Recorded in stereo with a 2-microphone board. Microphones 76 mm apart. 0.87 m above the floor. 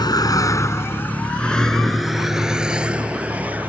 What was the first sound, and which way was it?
A vehicle, 60° left (ahead or behind).